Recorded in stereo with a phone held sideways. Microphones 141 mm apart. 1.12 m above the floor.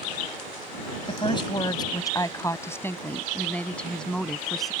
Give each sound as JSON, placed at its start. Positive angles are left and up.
{"t": 1.1, "sound": "a woman speaking", "side_deg": 40}